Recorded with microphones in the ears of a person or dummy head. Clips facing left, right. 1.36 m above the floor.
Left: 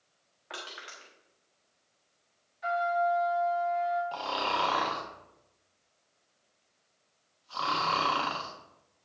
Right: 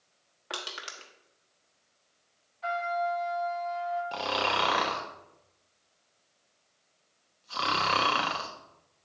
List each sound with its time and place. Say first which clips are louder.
0.5 s crushing: right 3 dB; 55° right (ahead or behind), 1.1 m
2.6 s a trumpet: left 2 dB; 15° left (ahead or behind), 2.5 m
4.1 s snoring: right 2 dB; 30° right (ahead or behind), 0.8 m